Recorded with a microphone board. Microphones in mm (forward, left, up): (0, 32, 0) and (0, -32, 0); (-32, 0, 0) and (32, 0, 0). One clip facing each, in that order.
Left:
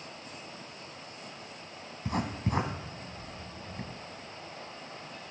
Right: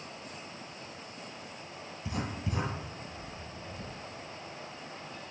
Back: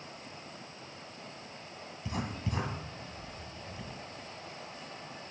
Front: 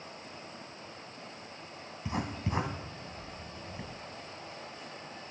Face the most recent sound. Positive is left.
turn(degrees=60)